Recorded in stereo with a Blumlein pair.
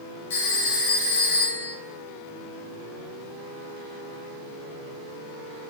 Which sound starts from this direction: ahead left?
A phone ringing, at 0.3 s.